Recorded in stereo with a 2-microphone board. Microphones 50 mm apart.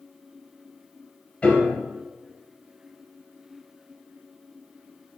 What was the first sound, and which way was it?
A piano, 20° left (ahead or behind).